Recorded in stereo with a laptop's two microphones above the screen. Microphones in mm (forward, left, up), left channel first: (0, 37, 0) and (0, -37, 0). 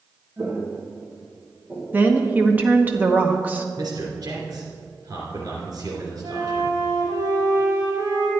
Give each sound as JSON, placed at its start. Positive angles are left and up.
{"t": 0.4, "sound": "footsteps", "side_deg": -40, "distance_m": 2.5}
{"t": 1.9, "sound": "a woman speaking", "side_deg": -25, "distance_m": 1.0}
{"t": 3.8, "sound": "a man speaking", "side_deg": -65, "distance_m": 2.5}
{"t": 6.2, "sound": "a flute", "side_deg": -85, "distance_m": 4.5}